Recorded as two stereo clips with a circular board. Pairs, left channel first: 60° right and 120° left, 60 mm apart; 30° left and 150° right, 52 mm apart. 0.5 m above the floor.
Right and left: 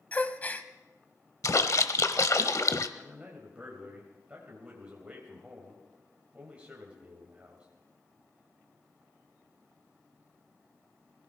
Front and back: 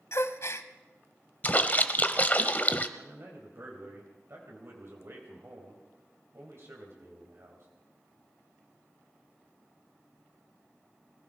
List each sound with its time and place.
0.1 s a gasp: 5° left, 0.7 m
1.4 s a splash: 30° right, 0.8 m
3.0 s a man speaking: 170° right, 3 m